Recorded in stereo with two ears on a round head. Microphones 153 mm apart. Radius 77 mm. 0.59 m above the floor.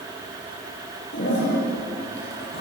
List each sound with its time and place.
1.1 s a toilet flushing: 65° left (ahead or behind), 8.5 m